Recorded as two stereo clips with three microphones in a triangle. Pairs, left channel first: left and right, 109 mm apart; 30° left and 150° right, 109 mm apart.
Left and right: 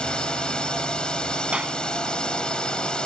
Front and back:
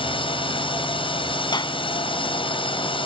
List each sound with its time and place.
0.0 s a drone: 10° left
1.5 s a clap: 10° right